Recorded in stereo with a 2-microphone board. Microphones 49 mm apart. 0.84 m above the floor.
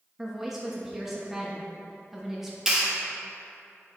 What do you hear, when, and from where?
0.2 s a woman speaking: 5° right (ahead or behind), 1.0 m
2.7 s a clap: 10° right (ahead or behind), 1.5 m